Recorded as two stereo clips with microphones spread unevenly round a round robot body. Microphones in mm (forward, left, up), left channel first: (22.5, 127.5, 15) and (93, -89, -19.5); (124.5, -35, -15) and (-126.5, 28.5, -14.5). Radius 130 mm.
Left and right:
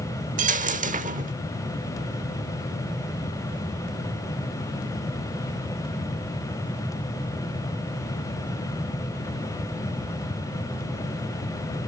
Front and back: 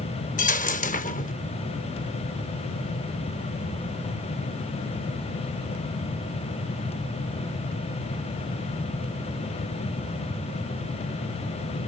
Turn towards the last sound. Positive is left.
turn(degrees=-35)